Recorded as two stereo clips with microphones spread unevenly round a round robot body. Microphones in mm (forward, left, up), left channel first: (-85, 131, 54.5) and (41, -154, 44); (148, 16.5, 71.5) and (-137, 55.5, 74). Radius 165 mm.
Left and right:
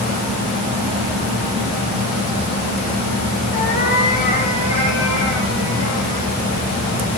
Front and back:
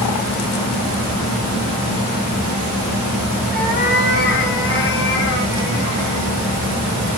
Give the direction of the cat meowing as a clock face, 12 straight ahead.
10 o'clock.